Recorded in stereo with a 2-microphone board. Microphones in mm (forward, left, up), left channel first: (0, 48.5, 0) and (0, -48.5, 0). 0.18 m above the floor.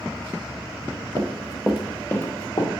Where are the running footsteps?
55° right (ahead or behind), 0.9 m; by 2.7 s 40° left (ahead or behind), 1.5 m.